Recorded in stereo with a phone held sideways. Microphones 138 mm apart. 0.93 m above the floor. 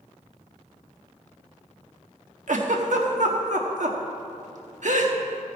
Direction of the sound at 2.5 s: 65° right (ahead or behind).